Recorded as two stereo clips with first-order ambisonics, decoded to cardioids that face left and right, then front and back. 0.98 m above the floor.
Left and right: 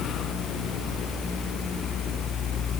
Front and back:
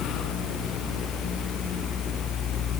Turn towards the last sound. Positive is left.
No sound to turn to.